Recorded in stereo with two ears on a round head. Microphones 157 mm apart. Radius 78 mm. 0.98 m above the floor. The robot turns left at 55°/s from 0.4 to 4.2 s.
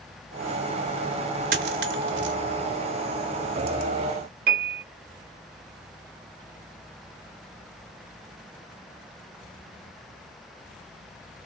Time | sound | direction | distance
1.5 | a dropped coin | 55° right (ahead or behind) | 0.9 m
4.5 | a piano | 55° right (ahead or behind) | 0.9 m